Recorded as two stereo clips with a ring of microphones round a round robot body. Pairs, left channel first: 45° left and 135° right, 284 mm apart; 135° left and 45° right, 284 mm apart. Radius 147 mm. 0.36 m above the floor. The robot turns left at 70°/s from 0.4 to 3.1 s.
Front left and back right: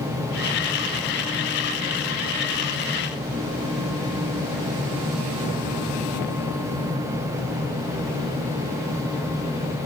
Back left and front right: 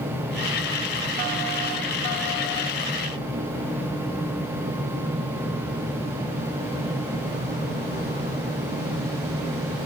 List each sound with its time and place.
Only background noise.